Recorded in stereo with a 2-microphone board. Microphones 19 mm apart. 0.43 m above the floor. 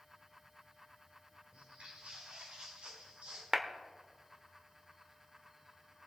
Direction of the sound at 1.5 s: 65° right (ahead or behind).